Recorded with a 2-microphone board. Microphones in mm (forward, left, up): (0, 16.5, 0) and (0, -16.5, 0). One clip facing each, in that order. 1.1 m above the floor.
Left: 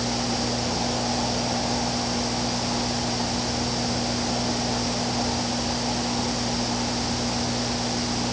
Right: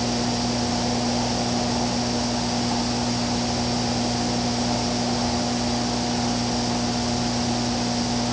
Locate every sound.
Only background noise.